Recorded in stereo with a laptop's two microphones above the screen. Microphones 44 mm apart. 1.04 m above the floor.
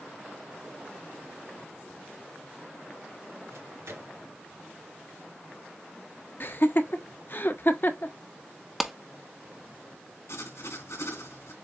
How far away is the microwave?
About 3.5 m.